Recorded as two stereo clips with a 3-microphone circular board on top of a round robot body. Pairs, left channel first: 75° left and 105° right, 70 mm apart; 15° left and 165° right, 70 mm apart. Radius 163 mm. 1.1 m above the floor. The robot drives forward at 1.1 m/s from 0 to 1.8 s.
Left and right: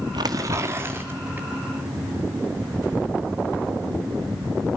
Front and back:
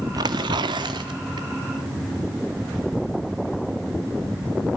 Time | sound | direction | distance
0.1 | tearing paper | 125° right | 0.6 m